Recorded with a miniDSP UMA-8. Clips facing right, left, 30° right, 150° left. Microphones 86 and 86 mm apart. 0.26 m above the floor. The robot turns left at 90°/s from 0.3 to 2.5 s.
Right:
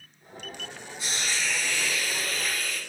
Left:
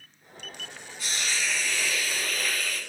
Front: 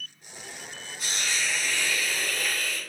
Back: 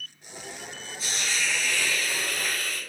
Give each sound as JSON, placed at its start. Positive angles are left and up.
{"t": 1.0, "sound": "a hiss", "azimuth_deg": -20, "distance_m": 1.1}